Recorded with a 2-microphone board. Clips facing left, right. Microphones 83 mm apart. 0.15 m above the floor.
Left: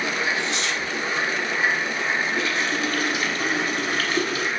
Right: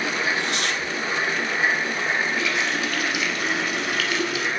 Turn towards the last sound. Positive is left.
turn(degrees=35)  # may be behind; listen again after turning